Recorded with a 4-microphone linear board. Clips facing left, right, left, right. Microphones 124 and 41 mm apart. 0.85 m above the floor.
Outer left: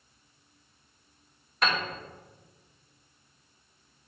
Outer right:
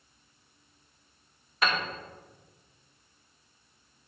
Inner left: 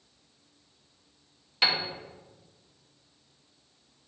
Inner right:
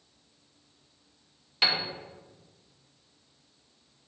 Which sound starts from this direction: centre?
A piano, at 1.6 s.